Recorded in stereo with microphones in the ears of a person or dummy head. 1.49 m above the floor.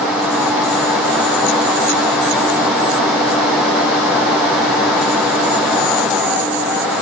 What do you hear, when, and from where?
Only background noise.